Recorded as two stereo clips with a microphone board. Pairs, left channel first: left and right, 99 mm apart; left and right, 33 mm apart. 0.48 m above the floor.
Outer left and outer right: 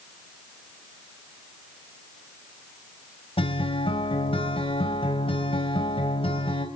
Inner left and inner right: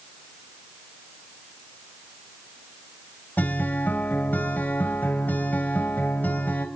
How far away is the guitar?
About 3 m.